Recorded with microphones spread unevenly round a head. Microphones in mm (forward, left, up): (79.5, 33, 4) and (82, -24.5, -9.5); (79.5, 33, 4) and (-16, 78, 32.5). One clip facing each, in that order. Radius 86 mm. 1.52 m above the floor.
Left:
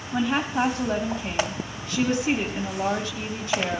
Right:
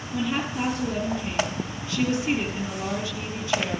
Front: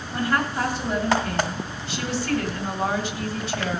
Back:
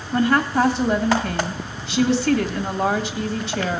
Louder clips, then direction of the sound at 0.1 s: Left 3 dB, back 6 dB; 155° left.